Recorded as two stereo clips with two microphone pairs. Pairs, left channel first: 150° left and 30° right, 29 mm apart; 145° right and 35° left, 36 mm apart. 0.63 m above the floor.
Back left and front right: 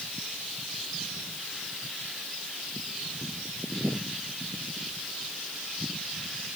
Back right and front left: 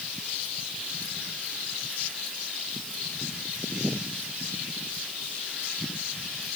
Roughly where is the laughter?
I don't hear laughter.